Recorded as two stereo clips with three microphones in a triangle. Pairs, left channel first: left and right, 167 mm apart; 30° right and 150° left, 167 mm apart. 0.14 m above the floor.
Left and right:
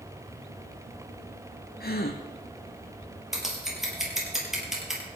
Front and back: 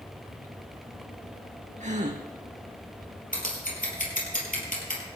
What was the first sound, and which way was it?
A gasp, 110° left.